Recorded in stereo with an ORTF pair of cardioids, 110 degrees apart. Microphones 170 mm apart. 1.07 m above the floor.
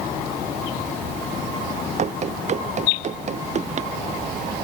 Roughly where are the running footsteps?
Ahead right.